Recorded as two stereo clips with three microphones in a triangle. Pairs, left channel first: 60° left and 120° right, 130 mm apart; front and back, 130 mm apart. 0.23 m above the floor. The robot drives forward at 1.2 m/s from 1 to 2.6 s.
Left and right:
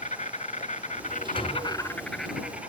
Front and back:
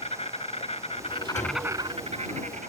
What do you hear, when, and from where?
0.0 s an insect: 40° left, 0.8 m; by 2.7 s 160° left, 1.4 m
1.4 s a door slam: 15° left, 2.5 m; by 1.7 s 20° left, 2 m